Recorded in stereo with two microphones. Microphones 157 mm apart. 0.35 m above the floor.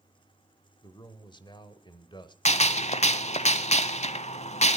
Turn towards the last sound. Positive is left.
turn(degrees=45)  # may be behind; listen again after turning